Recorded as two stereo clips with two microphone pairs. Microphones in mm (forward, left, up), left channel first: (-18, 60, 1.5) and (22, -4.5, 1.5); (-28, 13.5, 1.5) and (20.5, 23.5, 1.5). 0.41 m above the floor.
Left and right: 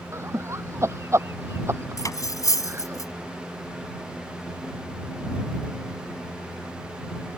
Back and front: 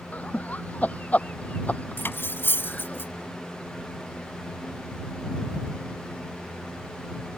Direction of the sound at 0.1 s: 110° right.